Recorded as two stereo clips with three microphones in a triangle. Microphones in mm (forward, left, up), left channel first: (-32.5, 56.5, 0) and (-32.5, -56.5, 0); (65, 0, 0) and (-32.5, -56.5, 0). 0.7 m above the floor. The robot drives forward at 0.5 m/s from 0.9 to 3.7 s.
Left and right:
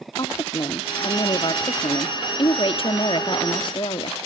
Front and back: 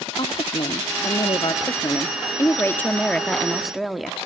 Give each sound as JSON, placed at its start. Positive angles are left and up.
{"t": 0.2, "sound": "a woman speaking", "azimuth_deg": 50, "distance_m": 1.5}